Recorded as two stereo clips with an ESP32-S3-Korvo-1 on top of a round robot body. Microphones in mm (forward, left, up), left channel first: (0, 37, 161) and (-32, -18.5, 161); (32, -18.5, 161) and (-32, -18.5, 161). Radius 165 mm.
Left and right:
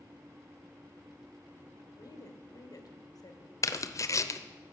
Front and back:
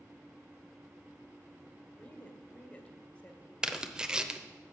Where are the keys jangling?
I don't hear keys jangling.